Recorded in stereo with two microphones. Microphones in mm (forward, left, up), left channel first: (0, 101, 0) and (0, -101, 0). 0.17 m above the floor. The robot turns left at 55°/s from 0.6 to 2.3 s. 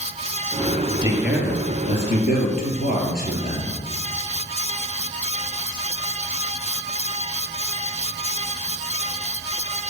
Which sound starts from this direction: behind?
A man speaking, at 1.0 s.